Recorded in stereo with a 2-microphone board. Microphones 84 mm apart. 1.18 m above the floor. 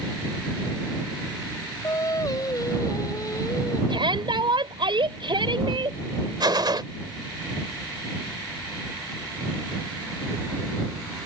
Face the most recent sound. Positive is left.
turn(degrees=-60)  # may be behind; listen again after turning